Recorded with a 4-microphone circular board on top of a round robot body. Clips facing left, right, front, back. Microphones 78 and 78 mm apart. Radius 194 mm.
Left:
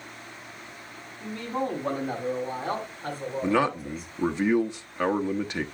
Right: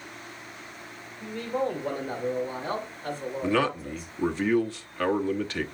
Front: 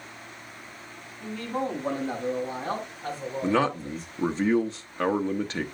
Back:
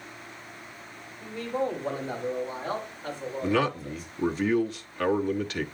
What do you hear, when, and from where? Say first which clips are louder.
1.2 s a man speaking: right 1 dB, back 1 dB; 40° left, 7 m; by 4.1 s 55° left, 6.5 m
3.4 s a man speaking: left 1 dB, front 1 dB; 30° left, 1.2 m